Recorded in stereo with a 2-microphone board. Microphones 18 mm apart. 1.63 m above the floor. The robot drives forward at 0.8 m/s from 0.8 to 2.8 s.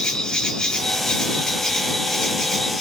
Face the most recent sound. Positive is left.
turn(degrees=30)  # may be behind; listen again after turning